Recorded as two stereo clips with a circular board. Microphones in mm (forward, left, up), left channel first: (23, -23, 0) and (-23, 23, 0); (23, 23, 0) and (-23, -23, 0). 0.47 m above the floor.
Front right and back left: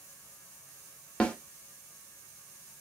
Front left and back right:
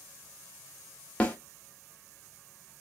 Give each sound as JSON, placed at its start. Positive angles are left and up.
{"t": 1.2, "sound": "a snare drum", "azimuth_deg": 5, "distance_m": 0.8}